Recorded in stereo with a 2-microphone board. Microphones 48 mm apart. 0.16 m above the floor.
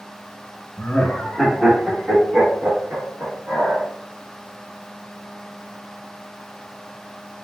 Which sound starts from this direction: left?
Laughter, at 0.8 s.